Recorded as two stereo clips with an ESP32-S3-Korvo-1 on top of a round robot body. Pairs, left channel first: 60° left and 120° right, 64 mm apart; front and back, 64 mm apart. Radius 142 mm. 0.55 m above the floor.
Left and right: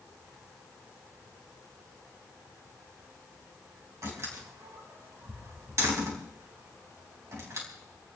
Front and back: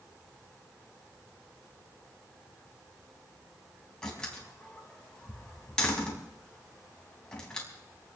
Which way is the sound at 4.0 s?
80° right.